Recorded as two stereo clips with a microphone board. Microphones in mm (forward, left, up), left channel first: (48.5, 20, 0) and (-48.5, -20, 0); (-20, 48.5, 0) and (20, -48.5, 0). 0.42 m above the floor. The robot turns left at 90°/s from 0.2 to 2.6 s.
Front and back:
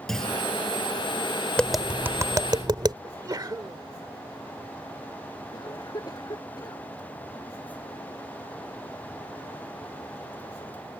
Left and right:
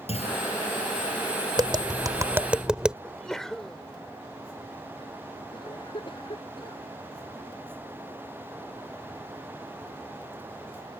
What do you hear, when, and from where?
0.1 s a clunk: 110° left; by 0.5 s 85° left
1.6 s tapping: 50° right; by 2.9 s 145° right
3.0 s a sneeze: 165° right
5.5 s a cough: 75° left